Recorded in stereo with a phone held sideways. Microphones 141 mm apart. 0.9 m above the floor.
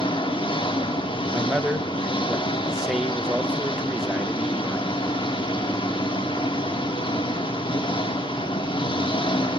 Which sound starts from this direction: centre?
A man speaking, at 1.3 s.